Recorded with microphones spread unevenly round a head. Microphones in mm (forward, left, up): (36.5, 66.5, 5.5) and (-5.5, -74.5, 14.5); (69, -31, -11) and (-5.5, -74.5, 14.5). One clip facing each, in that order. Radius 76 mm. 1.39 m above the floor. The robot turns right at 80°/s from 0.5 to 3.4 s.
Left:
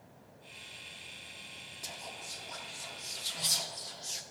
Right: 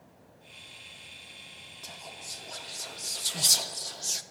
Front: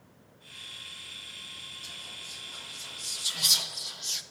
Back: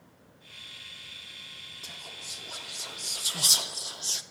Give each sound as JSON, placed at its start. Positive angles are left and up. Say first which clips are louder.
{"t": 1.8, "sound": "whispering", "louder": "even, back 1 dB", "azimuth_deg": 145, "distance_m": 0.6}